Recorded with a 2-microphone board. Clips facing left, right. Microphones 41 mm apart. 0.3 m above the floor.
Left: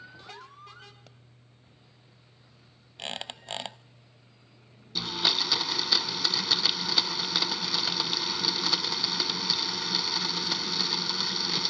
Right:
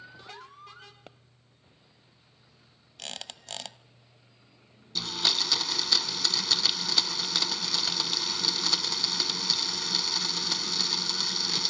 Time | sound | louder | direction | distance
1.1 | a pop | right 5 dB | 35° right (ahead or behind) | 0.6 m
3.0 | a squeak | left 4 dB | 25° left (ahead or behind) | 0.7 m
5.0 | a blender | left 1 dB | 10° left (ahead or behind) | 0.7 m